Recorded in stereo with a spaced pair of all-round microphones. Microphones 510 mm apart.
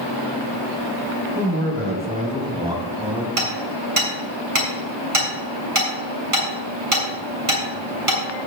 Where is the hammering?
90° right, 6 m.